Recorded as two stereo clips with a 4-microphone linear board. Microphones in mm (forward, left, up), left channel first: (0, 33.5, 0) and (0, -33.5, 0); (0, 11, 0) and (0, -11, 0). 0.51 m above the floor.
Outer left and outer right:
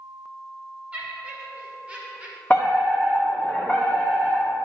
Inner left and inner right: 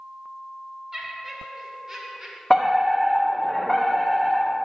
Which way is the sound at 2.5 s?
25° left (ahead or behind).